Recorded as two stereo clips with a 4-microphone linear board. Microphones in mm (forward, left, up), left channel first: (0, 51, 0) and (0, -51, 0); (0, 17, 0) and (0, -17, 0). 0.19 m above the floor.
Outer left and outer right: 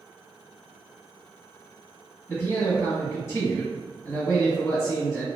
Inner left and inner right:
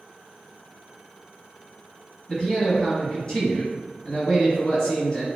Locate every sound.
2.3 s a man speaking: 25° left (ahead or behind), 1.6 m